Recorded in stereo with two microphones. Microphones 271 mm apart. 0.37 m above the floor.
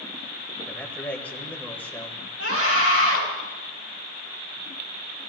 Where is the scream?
60° right (ahead or behind), 8.5 m.